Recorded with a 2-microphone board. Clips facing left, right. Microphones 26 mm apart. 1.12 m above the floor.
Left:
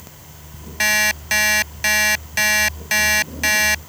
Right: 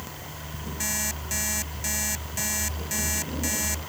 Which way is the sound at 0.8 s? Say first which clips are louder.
Left 15 dB; 65° left (ahead or behind).